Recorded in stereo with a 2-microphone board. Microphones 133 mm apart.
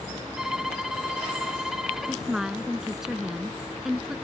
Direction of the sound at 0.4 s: 5° right (ahead or behind).